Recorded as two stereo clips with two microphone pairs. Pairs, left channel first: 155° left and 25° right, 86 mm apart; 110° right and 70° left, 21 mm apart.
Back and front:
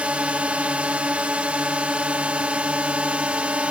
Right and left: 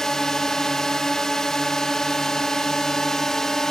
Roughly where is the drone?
Right.